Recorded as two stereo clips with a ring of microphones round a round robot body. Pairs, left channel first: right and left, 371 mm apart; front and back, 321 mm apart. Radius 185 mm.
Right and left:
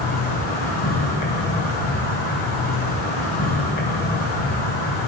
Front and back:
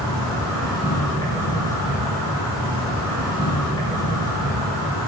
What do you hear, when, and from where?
0.0 s an insect: 65° right, 2 m